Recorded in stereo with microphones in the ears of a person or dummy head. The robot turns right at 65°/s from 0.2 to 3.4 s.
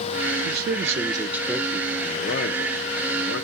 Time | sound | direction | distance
0.5 | a man speaking | 70° right | 0.7 m